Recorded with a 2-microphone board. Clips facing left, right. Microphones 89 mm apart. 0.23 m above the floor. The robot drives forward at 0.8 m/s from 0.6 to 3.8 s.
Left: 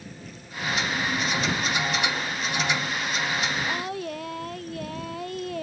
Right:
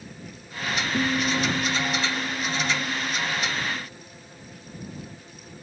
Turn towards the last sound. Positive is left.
turn(degrees=80)